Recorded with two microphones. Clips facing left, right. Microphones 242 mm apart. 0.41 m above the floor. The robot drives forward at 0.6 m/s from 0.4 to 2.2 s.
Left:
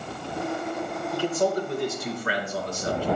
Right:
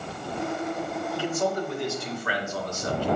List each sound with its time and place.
1.1 s a man speaking: 40° left (ahead or behind), 1.5 m; by 3.1 s 35° left (ahead or behind), 1.7 m